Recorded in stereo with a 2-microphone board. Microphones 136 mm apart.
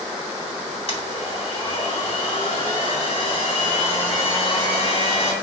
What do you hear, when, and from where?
0.9 s a blender: 50° left (ahead or behind), 1.8 m